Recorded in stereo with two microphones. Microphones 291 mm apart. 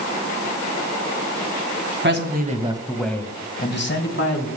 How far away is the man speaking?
About 1.8 m.